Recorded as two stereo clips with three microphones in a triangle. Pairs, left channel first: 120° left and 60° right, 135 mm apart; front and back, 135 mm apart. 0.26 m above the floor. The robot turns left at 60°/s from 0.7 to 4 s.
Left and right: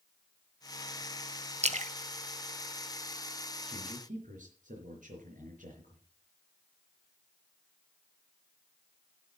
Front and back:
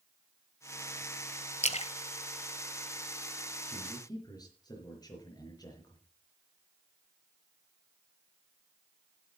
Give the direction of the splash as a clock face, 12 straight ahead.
1 o'clock.